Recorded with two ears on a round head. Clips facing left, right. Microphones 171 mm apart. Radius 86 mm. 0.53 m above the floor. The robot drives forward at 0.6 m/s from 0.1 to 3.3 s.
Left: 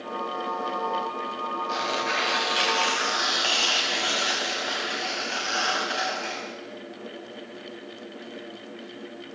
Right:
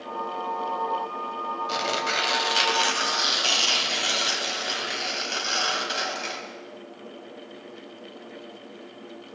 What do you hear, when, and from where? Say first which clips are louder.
1.7 s tearing paper: right 1 dB; 65° right (ahead or behind), 2.5 m; by 6.4 s 50° right (ahead or behind), 3 m